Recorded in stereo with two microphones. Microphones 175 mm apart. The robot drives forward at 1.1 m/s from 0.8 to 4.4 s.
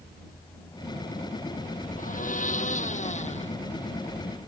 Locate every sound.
2.0 s a blender: 50° left (ahead or behind); by 3.5 s 40° left (ahead or behind)